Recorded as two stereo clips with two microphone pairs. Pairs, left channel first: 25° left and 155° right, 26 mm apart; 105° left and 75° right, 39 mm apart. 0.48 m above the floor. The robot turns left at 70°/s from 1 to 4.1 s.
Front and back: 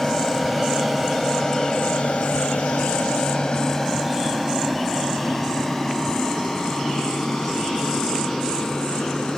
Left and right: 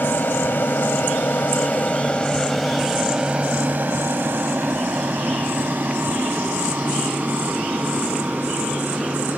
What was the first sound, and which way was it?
An aircraft, 100° left.